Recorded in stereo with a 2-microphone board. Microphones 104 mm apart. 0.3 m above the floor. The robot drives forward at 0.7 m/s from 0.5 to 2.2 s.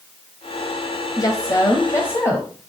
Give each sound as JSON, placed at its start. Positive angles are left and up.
{"t": 1.2, "sound": "a woman speaking", "side_deg": 35, "distance_m": 1.1}